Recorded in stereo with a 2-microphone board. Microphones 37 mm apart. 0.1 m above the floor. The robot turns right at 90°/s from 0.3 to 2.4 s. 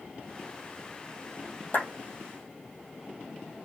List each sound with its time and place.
1.7 s a clap: 55° left (ahead or behind), 3 m; by 1.9 s 45° left (ahead or behind), 3 m